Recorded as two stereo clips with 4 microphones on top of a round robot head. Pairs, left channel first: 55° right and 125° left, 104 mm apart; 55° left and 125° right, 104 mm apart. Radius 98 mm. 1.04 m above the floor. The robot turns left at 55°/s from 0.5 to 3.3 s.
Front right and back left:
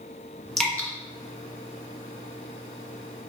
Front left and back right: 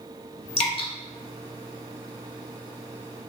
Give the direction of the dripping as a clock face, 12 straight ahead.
11 o'clock.